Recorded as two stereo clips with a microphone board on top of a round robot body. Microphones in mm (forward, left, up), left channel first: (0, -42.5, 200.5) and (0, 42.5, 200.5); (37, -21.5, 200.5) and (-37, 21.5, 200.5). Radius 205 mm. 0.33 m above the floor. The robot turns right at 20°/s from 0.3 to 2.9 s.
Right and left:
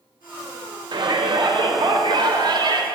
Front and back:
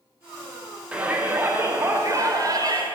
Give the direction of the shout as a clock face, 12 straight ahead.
9 o'clock.